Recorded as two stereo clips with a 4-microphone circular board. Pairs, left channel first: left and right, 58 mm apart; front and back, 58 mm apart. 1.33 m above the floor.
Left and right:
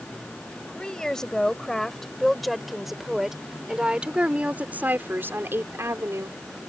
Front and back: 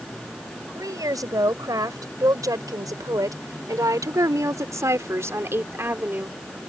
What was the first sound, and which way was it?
A woman speaking, 170° left.